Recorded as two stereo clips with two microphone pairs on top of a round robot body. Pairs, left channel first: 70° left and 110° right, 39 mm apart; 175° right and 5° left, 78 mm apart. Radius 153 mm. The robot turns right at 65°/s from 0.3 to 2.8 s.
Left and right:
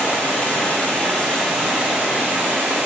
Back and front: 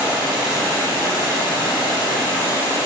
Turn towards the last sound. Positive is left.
turn(degrees=-120)